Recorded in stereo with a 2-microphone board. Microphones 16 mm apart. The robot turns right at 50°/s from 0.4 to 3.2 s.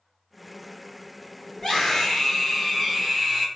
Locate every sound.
1.6 s a scream: 125° left, 1.9 m; by 3.5 s 155° right, 1.9 m